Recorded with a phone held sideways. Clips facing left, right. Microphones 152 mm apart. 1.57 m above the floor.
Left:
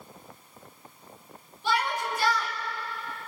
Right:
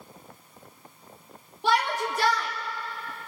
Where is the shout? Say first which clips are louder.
Right 3 dB; 75° right (ahead or behind), 3 m.